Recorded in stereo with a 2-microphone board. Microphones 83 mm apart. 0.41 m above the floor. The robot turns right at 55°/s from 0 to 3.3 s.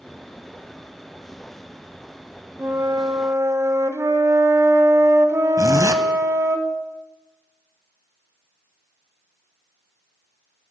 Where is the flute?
120° right, 0.6 m; by 6.6 s 80° right, 0.6 m.